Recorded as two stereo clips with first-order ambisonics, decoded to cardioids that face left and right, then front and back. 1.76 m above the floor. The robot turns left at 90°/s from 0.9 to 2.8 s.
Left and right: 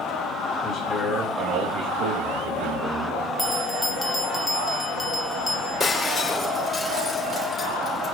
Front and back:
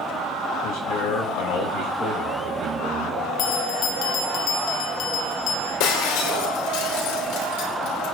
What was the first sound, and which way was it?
A man speaking, 30° left.